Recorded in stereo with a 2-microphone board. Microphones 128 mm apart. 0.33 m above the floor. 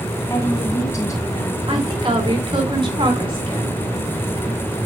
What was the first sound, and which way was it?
A woman speaking, 25° left (ahead or behind).